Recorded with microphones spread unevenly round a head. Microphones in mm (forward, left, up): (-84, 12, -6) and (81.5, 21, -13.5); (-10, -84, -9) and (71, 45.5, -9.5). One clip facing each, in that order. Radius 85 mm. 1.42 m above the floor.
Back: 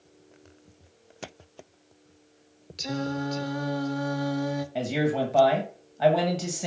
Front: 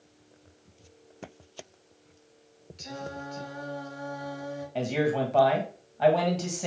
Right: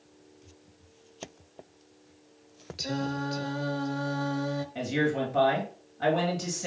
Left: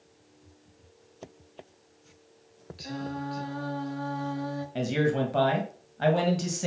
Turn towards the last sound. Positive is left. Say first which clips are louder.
# front 1 dB, left 3 dB
turn(degrees=100)